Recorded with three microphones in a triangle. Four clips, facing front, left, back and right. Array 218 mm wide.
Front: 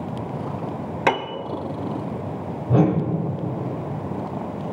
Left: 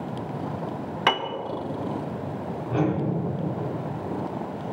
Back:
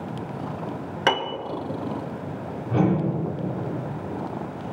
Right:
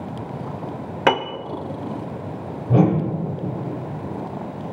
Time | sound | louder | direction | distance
1.1 | a piano | right 5 dB, front 1 dB | 85° right | 0.7 m
2.7 | a whoosh | right 7 dB, front 3 dB | 55° right | 1.8 m